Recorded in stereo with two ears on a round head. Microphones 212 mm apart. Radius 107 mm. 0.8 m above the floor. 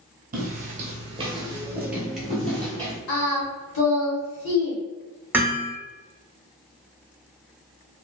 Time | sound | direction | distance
0.3 | footsteps | 40° right (ahead or behind) | 1.0 m
3.1 | singing | 65° left (ahead or behind) | 1.2 m
5.3 | hammering | 10° right (ahead or behind) | 1.0 m